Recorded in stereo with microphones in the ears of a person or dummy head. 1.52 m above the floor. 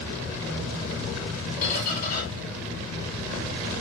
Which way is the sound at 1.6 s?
50° left (ahead or behind).